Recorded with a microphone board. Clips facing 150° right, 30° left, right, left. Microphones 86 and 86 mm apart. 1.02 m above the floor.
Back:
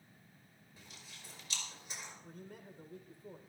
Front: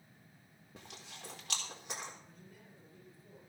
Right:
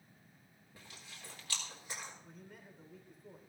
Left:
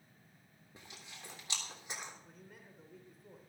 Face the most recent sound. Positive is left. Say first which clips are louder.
# back 6 dB, right 2 dB
turn(degrees=180)